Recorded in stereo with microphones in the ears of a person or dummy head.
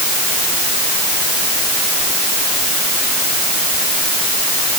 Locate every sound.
Only background noise.